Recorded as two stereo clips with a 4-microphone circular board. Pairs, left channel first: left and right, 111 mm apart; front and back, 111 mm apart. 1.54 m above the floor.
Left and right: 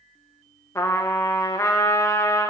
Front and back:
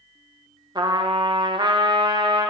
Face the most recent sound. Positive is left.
turn(degrees=145)